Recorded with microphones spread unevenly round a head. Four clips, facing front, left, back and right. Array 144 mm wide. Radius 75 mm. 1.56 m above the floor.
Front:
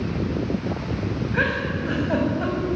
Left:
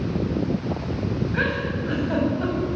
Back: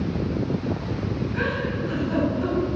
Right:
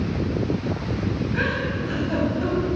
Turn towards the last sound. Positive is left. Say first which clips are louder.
# even, front 3 dB
turn(degrees=10)